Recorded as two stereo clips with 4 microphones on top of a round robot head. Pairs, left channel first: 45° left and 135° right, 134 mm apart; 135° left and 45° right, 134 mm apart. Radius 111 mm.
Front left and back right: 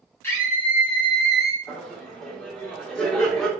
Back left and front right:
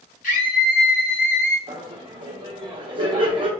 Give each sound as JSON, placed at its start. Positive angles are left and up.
{"t": 0.2, "sound": "a scream", "azimuth_deg": 120, "distance_m": 1.8}
{"t": 1.7, "sound": "laughter", "azimuth_deg": -35, "distance_m": 0.9}